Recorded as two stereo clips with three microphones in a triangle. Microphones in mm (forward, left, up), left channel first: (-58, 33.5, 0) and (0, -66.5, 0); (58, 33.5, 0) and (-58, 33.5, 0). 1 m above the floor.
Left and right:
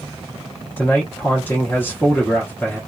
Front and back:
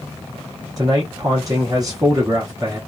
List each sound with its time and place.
0.8 s a man speaking: 175° left, 0.7 m